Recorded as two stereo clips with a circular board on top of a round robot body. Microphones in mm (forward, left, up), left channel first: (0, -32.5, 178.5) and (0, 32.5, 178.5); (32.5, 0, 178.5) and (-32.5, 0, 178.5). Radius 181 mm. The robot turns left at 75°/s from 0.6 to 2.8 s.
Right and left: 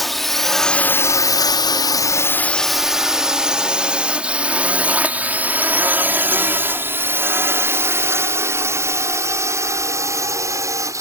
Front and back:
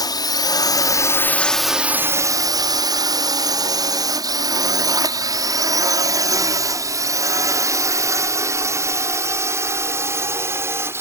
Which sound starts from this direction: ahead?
A drone, at 0.0 s.